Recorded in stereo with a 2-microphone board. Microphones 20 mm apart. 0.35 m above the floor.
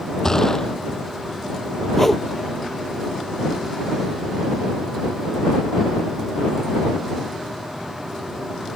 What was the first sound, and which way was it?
A gunshot, 25° left (ahead or behind).